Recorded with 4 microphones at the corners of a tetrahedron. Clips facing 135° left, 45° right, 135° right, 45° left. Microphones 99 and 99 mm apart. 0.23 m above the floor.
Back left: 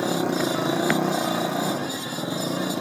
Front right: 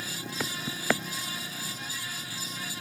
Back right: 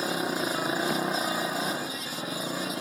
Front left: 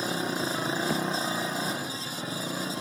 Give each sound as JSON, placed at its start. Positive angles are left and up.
{"t": 0.0, "sound": "a motorcycle", "azimuth_deg": 145}